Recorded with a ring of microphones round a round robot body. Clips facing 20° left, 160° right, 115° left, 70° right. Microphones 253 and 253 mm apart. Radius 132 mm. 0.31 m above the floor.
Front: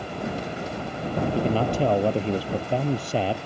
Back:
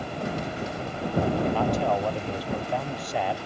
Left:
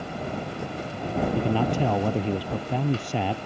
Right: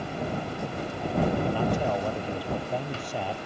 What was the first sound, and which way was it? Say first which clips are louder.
A man speaking: front 2 dB, left 3 dB; 85° left.